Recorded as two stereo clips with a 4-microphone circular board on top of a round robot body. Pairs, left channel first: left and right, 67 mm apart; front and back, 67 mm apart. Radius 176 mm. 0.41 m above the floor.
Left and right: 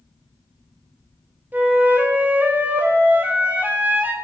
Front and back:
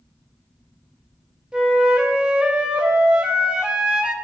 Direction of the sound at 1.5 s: 120° right.